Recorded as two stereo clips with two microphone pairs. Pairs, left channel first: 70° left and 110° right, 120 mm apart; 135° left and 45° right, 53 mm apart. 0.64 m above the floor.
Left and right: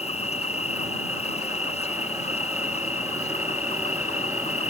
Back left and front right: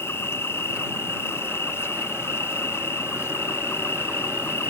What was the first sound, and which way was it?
An insect, 95° left.